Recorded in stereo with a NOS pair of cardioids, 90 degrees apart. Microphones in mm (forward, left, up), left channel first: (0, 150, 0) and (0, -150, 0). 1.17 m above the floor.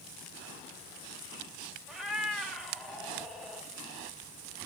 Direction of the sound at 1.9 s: Straight ahead.